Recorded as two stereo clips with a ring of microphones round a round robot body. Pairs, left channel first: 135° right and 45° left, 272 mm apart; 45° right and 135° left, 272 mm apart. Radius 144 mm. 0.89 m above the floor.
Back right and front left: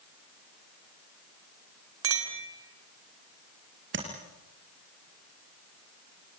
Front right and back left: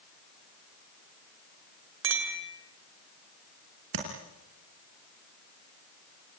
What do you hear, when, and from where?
2.0 s a clink: 90° left, 3 m
3.9 s tapping: 95° left, 4.5 m